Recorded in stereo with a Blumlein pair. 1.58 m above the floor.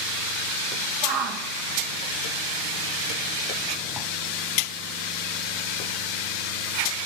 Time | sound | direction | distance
1.0 | a shout | 45° right | 2 m